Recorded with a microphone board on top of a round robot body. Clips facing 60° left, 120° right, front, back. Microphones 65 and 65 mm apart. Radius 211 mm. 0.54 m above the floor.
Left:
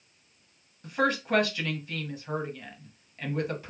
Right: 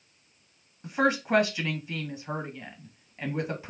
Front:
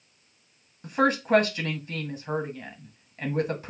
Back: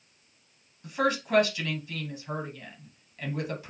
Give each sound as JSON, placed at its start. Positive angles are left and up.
{"t": 0.8, "sound": "a woman speaking", "azimuth_deg": -45, "distance_m": 1.4}